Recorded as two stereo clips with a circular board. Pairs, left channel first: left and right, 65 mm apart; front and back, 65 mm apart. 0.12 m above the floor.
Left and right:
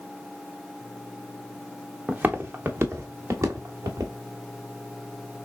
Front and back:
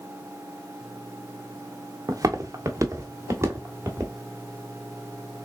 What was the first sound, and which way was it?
Footsteps, 155° right.